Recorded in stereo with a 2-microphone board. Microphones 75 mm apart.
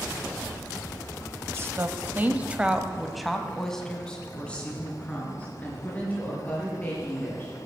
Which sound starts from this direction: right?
A woman speaking, at 1.5 s.